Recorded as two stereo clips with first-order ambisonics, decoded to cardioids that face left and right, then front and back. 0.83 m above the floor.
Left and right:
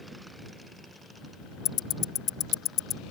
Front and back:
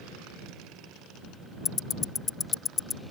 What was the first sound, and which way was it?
Ticking, 60° left.